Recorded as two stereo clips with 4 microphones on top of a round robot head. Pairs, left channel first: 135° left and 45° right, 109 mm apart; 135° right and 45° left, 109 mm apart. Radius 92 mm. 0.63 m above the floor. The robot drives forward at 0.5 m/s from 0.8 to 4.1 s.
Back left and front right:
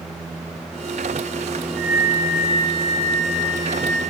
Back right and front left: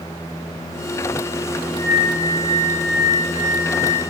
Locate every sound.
1.7 s a flute: 140° right, 7 m; by 4.0 s 145° right, 8 m